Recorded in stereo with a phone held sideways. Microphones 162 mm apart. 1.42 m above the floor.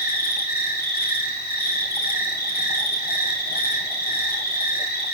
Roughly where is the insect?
Left.